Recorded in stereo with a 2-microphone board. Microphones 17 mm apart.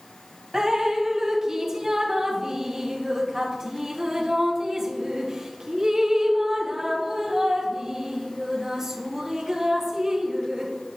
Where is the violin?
I don't hear a violin.